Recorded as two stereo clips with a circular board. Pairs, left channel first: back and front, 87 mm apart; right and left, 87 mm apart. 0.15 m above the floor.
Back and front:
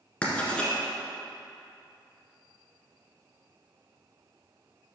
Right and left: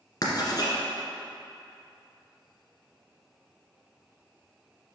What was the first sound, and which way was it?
Writing, 105° right.